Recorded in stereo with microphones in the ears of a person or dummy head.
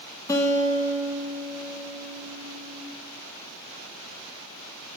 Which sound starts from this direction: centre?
A guitar, at 0.3 s.